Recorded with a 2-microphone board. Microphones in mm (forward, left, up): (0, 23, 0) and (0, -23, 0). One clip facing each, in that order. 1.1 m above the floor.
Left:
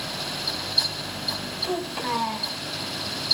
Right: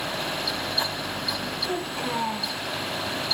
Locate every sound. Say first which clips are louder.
1.6 s a child speaking: left 3 dB; 35° left (ahead or behind), 3.5 m